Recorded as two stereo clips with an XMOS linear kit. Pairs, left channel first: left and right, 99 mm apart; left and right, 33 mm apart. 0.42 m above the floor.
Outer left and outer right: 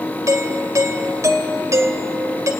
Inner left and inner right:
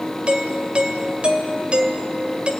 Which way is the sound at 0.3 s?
35° right (ahead or behind).